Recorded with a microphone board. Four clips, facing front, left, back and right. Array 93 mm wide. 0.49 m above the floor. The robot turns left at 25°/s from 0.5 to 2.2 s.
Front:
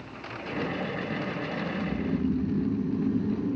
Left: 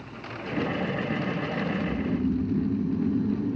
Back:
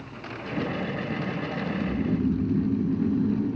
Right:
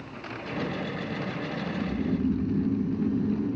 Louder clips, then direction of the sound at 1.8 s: Left 1 dB, back 3 dB; 165° right.